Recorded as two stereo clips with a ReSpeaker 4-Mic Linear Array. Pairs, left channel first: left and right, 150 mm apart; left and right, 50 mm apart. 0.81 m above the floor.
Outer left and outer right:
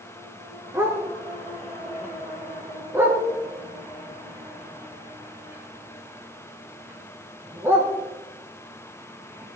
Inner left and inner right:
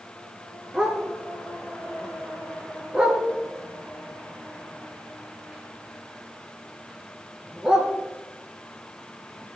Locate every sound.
0.7 s a dog barking: 15° right (ahead or behind), 4 m